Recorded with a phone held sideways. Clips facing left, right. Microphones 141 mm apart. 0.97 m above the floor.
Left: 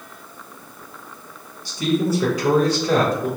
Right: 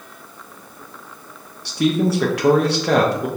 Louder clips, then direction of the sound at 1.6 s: Right 2 dB; 70° right (ahead or behind).